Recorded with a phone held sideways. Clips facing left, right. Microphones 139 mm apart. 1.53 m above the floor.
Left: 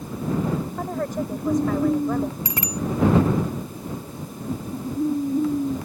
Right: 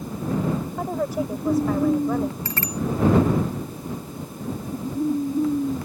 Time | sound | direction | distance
0.8 | a woman speaking | 10° right (ahead or behind) | ?
2.5 | a bicycle bell | 15° left (ahead or behind) | ?